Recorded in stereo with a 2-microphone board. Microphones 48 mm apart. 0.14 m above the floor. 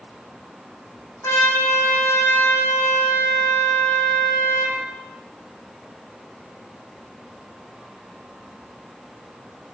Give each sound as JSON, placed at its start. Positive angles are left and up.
{"t": 1.2, "sound": "a trumpet", "side_deg": 60, "distance_m": 8.0}